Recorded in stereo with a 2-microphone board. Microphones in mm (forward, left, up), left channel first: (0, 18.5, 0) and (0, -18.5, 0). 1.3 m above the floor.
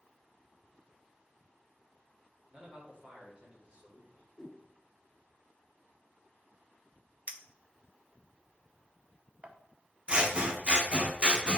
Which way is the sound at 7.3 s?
40° right (ahead or behind).